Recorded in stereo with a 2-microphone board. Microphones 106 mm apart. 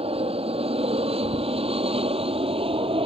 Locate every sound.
0.0 s an aircraft: 65° right (ahead or behind); by 3.1 s 60° right (ahead or behind)